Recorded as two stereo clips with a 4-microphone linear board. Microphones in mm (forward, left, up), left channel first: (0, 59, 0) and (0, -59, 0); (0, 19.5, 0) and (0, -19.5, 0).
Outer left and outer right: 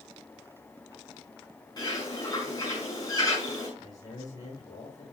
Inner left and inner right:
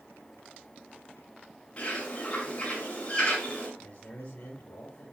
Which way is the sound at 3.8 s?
40° left (ahead or behind).